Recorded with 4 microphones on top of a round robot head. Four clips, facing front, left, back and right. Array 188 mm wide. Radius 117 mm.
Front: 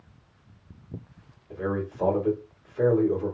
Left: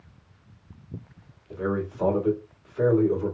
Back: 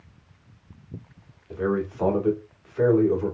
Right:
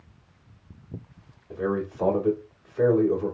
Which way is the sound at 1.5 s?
165° right.